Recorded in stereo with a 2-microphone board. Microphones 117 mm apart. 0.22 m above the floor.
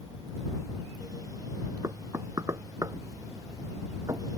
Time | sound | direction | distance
1.8 | knocking | 30° right (ahead or behind) | ?